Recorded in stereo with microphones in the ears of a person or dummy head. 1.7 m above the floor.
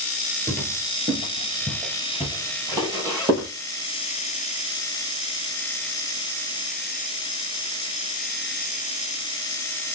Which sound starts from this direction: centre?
Footsteps, at 0.5 s.